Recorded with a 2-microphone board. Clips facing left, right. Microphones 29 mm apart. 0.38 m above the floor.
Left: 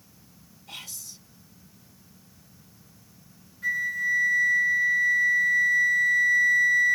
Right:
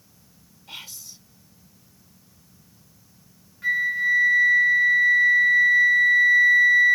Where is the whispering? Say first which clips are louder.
Right 2 dB; 25° right (ahead or behind), 1.3 m.